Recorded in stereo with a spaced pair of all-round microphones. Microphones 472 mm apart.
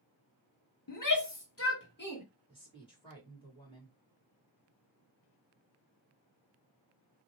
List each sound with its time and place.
0.9 s a shout: 45° left (ahead or behind), 0.9 m; by 2.2 s 20° left (ahead or behind), 1.5 m
2.5 s a woman speaking: 10° left (ahead or behind), 1.9 m